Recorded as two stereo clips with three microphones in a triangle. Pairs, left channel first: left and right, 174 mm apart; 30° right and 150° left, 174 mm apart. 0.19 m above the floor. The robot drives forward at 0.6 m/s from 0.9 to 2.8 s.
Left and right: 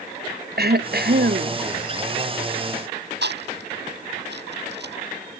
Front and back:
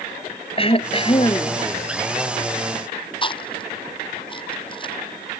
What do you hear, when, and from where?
0.6 s throat clearing: 85° right; by 1.6 s 90° right
3.2 s chewing: 90° right